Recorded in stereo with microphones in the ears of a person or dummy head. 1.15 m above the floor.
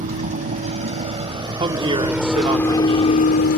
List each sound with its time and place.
0.0 s a vehicle: 35° right (ahead or behind); by 3.6 s 65° left (ahead or behind)
1.6 s a woman speaking: 20° right (ahead or behind)